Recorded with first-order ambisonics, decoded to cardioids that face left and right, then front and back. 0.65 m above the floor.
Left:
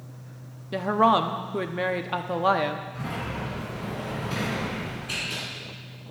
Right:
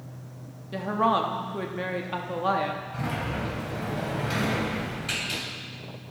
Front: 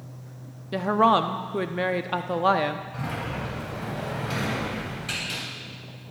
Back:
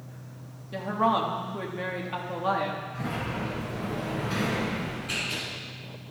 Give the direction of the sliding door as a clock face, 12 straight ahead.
2 o'clock.